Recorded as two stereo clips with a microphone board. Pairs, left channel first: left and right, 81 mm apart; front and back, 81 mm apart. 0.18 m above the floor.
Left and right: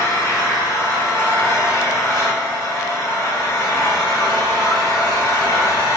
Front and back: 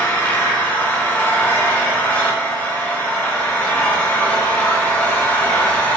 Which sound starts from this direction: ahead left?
An engine running, at 0.0 s.